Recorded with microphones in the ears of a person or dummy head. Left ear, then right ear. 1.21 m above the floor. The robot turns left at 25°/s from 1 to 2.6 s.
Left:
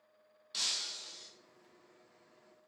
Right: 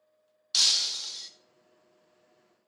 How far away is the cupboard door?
No cupboard door in this recording.